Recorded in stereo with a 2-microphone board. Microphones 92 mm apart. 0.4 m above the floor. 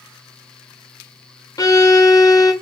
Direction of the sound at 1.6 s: 40° left (ahead or behind).